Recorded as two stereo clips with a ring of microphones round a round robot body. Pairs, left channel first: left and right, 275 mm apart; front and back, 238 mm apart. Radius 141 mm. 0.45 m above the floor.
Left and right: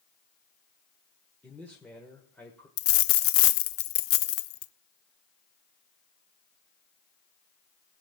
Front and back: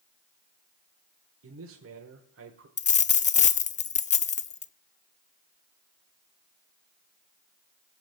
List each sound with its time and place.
1.4 s a man speaking: 175° left, 1.4 m
2.8 s a dropped coin: 55° left, 0.5 m